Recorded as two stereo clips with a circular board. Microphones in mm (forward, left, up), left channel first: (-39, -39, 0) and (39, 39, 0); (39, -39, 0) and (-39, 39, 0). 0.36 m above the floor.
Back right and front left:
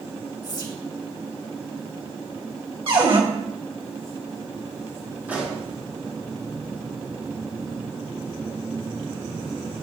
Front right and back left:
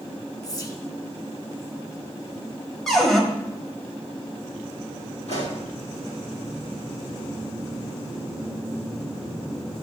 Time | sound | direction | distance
0.4 | whispering | 95° right | 2 m
2.9 | a cupboard door | 40° left | 1.7 m
5.3 | a pop | 30° right | 5 m